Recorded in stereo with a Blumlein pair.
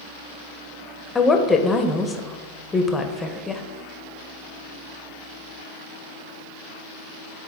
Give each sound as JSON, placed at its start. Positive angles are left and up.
{"t": 1.1, "sound": "a woman speaking", "azimuth_deg": 15, "distance_m": 0.9}